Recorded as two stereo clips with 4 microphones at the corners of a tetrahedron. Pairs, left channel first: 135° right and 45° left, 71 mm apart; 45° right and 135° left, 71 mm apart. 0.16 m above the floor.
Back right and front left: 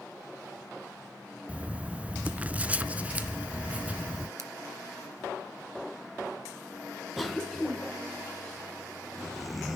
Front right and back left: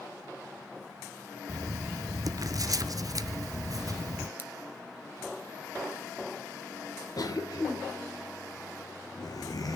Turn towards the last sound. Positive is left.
turn(degrees=-45)